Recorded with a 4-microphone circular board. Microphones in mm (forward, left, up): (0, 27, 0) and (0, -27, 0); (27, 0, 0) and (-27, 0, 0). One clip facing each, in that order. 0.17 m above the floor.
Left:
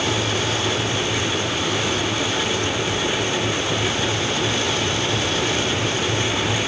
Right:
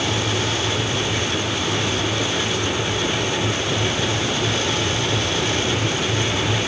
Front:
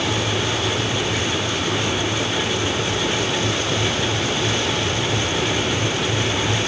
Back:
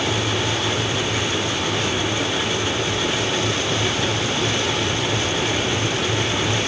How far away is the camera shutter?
I don't hear a camera shutter.